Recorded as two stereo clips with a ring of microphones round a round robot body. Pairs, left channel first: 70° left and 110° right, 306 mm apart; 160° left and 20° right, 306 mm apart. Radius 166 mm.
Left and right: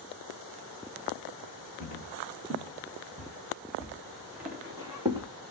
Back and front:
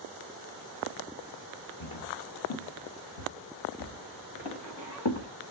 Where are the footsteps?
135° left, 3.5 m; by 5.3 s 170° left, 4 m.